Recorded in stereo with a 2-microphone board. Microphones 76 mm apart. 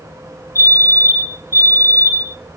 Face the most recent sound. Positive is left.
turn(degrees=40)  # may be behind; listen again after turning